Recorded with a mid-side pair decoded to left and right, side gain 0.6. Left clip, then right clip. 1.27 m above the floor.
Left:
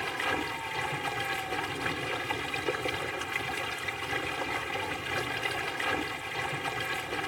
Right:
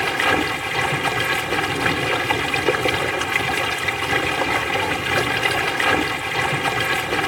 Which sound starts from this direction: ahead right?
Running water, at 0.0 s.